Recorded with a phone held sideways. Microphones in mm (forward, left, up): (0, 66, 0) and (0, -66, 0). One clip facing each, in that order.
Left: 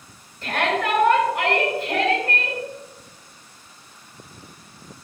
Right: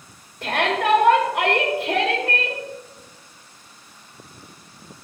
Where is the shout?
75° right (ahead or behind), 2.5 m.